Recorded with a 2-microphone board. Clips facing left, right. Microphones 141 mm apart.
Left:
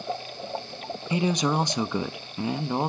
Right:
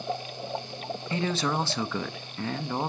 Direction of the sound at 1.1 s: 15° left (ahead or behind).